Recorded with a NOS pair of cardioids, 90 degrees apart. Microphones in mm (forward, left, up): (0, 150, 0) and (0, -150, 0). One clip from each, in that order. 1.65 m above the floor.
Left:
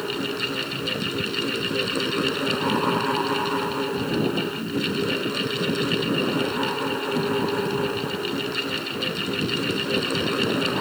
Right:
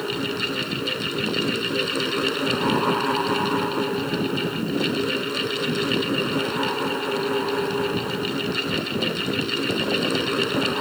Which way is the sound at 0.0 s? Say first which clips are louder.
Right 1 dB; 10° right.